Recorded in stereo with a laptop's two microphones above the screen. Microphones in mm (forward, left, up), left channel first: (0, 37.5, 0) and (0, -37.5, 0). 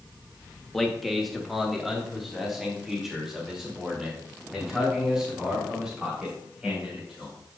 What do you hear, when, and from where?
0.7 s a man speaking: centre (ahead or behind), 1.2 m; by 7.3 s 10° right (ahead or behind), 6 m